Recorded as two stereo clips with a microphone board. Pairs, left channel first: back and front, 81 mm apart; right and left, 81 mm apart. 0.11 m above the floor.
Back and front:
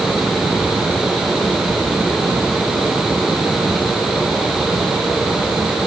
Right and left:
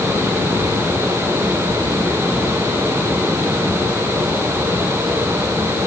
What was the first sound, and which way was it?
Only background noise.